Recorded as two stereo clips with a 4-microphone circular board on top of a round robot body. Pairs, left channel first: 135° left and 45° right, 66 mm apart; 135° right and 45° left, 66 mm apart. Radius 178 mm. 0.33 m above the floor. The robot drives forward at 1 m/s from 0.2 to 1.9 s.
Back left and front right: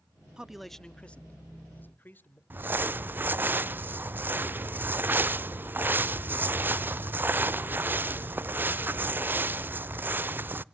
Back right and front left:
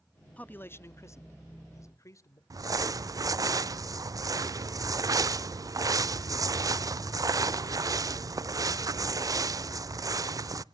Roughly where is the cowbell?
No cowbell in this recording.